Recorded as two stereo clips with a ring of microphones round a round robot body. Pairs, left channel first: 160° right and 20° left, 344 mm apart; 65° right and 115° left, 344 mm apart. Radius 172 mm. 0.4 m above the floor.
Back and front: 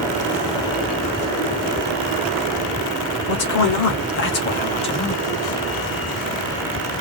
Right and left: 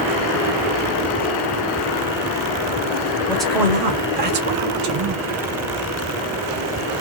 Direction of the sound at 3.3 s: 150° right.